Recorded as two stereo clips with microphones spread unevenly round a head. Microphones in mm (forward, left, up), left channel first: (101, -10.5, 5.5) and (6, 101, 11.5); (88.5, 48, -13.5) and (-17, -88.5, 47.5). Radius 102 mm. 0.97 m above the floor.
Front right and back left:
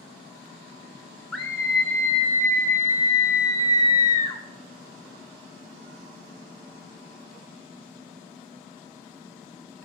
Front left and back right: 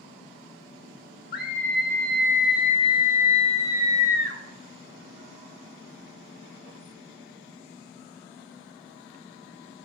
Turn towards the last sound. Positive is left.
turn(degrees=5)